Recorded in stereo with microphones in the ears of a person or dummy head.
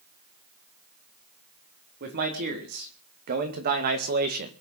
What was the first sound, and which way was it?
A man speaking, 55° right (ahead or behind).